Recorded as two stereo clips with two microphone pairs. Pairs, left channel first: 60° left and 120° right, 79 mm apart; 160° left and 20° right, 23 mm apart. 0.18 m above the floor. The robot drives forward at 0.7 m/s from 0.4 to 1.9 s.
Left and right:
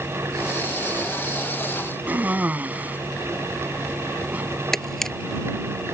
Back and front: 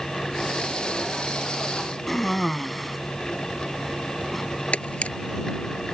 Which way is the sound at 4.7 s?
145° left.